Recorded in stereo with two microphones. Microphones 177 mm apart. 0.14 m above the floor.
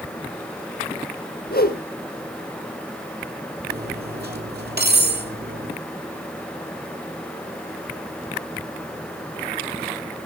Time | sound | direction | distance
1.5 | a whoosh | 60° left (ahead or behind) | 1.5 m
3.7 | cutlery clinking | 65° right (ahead or behind) | 2.5 m